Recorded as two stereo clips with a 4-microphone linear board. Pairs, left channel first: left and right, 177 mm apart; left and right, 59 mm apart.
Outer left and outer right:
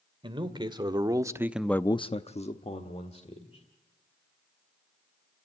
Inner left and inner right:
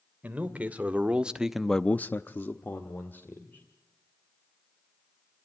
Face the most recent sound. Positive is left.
turn(degrees=35)  # may be behind; listen again after turning